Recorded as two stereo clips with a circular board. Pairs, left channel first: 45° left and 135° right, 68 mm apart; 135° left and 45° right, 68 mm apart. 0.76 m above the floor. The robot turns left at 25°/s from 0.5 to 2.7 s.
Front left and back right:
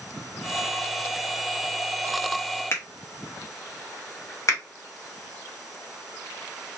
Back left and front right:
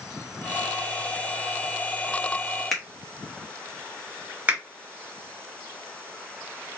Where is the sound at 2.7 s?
50° left, 0.8 m.